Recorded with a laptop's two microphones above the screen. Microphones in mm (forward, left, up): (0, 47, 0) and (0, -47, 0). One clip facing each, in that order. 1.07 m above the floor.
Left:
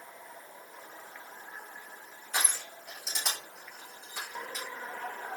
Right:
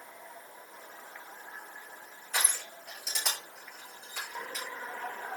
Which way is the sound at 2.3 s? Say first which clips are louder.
Even; 10° left (ahead or behind).